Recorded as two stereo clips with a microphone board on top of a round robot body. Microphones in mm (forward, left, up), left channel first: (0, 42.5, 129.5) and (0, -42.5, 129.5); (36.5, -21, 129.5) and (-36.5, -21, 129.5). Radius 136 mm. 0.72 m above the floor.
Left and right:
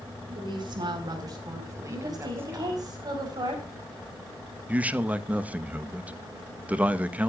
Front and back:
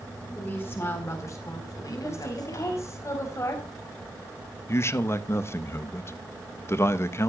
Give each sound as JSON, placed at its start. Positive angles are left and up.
{"t": 0.3, "sound": "a woman speaking", "azimuth_deg": -65, "distance_m": 4.5}
{"t": 1.9, "sound": "a woman speaking", "azimuth_deg": -50, "distance_m": 5.5}
{"t": 4.7, "sound": "a man speaking", "azimuth_deg": -25, "distance_m": 1.1}